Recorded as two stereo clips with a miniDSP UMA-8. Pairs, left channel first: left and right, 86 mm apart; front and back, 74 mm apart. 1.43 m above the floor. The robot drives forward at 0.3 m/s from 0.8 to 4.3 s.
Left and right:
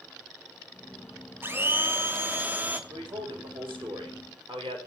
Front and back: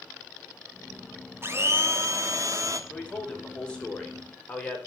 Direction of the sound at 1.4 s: 140° right.